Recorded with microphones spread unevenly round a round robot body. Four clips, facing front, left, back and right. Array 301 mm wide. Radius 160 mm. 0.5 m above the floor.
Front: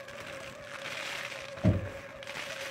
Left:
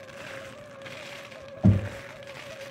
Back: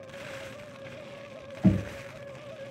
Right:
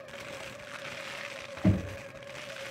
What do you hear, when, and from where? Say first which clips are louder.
1.6 s knocking: left 4 dB, back 5 dB; 95° left, 3.5 m